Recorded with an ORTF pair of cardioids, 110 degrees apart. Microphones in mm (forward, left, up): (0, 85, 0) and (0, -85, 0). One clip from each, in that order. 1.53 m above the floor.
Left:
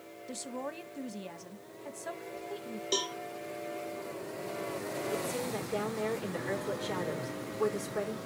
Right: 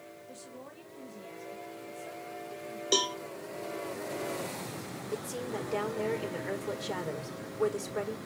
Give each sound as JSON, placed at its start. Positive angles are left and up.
{"t": 0.3, "sound": "a woman speaking", "azimuth_deg": 60, "distance_m": 1.5}
{"t": 2.9, "sound": "a cowbell", "azimuth_deg": -25, "distance_m": 0.6}
{"t": 5.1, "sound": "a woman speaking", "azimuth_deg": -20, "distance_m": 5.0}